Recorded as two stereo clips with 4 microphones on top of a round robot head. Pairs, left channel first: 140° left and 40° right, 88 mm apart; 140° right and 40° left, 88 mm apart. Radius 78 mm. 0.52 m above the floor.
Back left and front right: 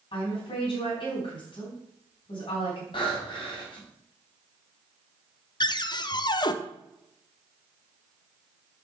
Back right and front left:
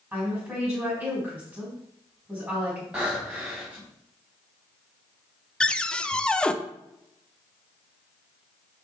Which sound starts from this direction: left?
A woman speaking, at 0.1 s.